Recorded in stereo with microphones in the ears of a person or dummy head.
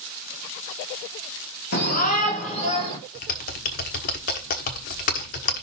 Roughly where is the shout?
Left.